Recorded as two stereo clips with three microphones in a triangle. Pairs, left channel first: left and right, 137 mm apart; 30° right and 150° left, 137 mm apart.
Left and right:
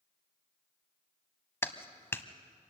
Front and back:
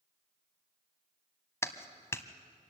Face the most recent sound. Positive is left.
turn(degrees=30)